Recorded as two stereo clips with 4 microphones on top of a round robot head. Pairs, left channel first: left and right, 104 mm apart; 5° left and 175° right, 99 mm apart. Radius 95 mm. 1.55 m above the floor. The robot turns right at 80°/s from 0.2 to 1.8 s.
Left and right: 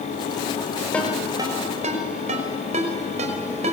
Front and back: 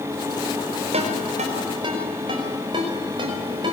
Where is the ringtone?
170° left, 5.5 m; by 3.7 s 120° right, 5.5 m.